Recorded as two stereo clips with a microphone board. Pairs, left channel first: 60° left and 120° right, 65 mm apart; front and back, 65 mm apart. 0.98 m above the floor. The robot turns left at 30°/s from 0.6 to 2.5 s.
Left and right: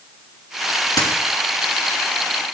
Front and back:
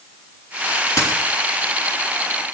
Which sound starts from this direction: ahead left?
A dropped coin, at 1.0 s.